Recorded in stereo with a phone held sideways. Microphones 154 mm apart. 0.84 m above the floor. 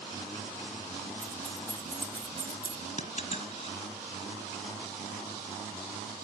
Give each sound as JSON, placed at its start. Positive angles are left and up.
{"t": 1.2, "sound": "keys jangling", "side_deg": -80, "distance_m": 1.7}
{"t": 3.0, "sound": "a dropped coin", "side_deg": 60, "distance_m": 1.3}